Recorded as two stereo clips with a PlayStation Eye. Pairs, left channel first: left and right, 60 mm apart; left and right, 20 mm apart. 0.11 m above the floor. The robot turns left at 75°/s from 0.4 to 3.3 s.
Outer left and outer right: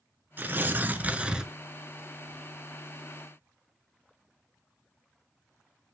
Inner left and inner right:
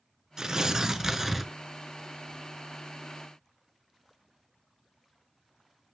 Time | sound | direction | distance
0.4 | tearing paper | 80° right | 0.5 m